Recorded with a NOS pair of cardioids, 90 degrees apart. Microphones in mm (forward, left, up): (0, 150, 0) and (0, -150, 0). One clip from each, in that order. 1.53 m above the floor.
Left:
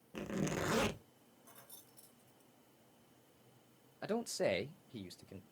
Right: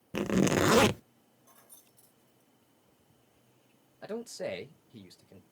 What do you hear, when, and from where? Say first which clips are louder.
0.1 s a zipper: right 12 dB; 60° right, 0.5 m
1.4 s keys jangling: even; 20° left, 1.9 m
4.0 s a man speaking: left 1 dB; 15° left, 0.7 m